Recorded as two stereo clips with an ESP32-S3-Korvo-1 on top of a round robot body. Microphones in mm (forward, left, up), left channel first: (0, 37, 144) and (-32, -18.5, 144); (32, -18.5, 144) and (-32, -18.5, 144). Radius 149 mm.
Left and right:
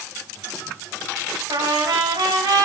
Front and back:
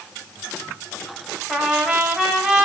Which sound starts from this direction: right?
A trumpet, at 1.5 s.